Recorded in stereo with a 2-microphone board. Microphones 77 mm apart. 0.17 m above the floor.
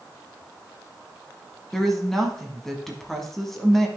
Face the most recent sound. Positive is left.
turn(degrees=5)  # may be behind; listen again after turning